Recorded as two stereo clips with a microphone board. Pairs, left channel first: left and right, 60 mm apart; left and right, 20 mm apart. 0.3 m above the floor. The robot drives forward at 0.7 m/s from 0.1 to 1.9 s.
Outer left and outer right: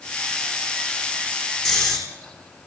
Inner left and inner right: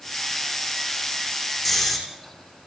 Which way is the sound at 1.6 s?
5° left (ahead or behind).